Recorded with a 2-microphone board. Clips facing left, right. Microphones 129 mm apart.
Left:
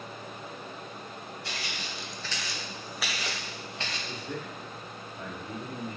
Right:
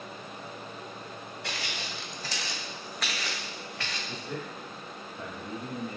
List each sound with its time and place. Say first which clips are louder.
1.4 s footsteps: right 4 dB; 85° right, 0.7 m; by 4.0 s 25° left (ahead or behind), 1.1 m
4.1 s a man speaking: even; 25° left (ahead or behind), 1.1 m